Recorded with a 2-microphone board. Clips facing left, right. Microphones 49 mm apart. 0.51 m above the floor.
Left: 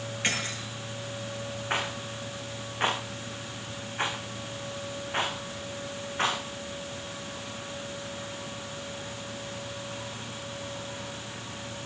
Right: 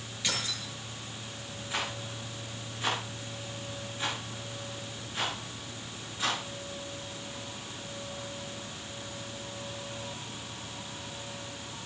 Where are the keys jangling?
50° left (ahead or behind), 7.5 m.